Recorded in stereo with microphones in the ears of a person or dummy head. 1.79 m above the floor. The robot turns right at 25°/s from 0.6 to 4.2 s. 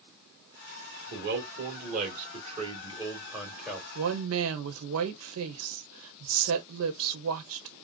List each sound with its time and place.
1.1 s a man speaking: 70° right, 2.0 m; by 3.9 s straight ahead, 2.0 m
4.0 s a woman speaking: 85° right, 1.1 m; by 7.7 s 80° right, 1.1 m